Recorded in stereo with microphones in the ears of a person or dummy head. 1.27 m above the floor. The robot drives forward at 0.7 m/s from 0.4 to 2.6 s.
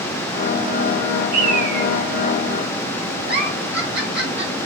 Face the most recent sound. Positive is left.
turn(degrees=-60)  # may be behind; listen again after turning